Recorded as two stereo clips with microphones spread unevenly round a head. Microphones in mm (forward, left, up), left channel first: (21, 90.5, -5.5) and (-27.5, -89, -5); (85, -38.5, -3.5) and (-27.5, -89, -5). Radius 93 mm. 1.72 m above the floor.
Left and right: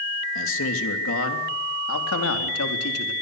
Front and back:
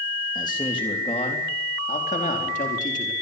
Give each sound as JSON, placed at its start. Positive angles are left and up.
{"t": 0.3, "sound": "a man speaking", "azimuth_deg": 95, "distance_m": 3.0}